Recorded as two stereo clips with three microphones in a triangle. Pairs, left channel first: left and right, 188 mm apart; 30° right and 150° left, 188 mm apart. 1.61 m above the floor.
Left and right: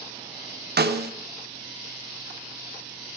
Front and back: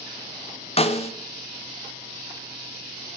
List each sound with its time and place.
0.8 s a snare drum: 85° right, 0.5 m